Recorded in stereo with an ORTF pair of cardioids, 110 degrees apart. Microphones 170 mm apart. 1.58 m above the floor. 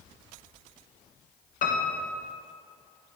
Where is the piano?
50° left, 1.3 m.